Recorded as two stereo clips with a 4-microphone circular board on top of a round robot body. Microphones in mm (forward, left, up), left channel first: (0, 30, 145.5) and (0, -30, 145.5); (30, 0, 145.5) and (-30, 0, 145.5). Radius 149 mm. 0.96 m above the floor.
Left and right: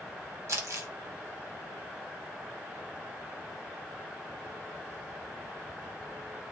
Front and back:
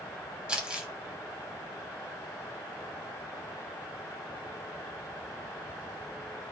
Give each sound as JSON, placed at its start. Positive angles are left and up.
{"t": 0.5, "sound": "crumpling", "azimuth_deg": -110, "distance_m": 0.8}